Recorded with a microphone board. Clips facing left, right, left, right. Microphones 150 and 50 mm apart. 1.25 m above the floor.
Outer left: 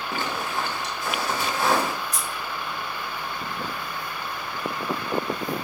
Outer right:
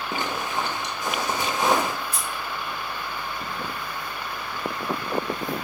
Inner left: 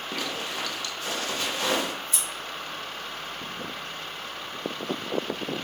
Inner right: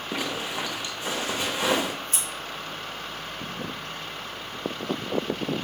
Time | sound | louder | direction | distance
0.1 | a zipper | outer right 1 dB, inner right 3 dB | 20° right (ahead or behind) | 0.8 m
2.1 | scissors | even, inner right 1 dB | 60° right (ahead or behind) | 2.5 m